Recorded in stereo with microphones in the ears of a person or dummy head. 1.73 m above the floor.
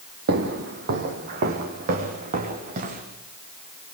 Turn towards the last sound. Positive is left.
turn(degrees=-45)  # may be behind; listen again after turning